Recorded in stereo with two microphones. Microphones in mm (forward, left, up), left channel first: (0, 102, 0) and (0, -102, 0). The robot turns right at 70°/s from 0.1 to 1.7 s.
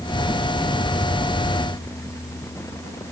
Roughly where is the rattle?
I don't hear a rattle.